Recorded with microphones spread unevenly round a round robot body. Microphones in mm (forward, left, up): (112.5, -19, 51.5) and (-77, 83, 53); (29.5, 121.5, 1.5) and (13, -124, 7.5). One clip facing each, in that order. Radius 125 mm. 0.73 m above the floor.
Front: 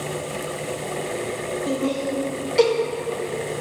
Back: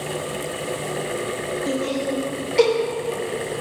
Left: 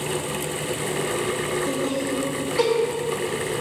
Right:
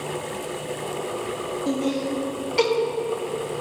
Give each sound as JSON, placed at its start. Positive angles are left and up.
{"t": 1.7, "sound": "laughter", "azimuth_deg": -135, "distance_m": 1.5}